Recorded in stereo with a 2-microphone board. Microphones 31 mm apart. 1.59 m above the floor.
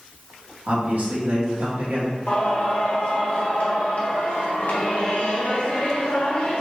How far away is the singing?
About 1.6 m.